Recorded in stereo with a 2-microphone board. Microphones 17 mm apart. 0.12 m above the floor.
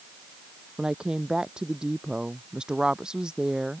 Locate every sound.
0.8 s a woman speaking: 55° right (ahead or behind)